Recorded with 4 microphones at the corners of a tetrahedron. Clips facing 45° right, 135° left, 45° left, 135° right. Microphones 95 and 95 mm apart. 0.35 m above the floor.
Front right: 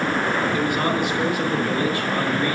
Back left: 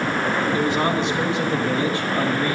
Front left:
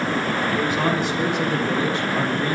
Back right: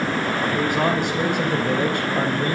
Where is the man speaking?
160° right, 3.5 m.